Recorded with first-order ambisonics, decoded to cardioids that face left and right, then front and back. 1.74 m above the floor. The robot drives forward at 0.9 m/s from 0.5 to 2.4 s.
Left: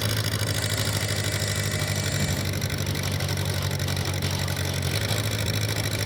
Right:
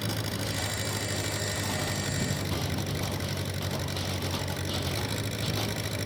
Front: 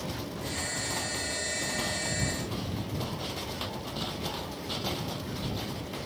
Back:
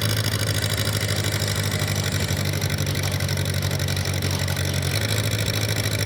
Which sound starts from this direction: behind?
An engine running, at 0.0 s.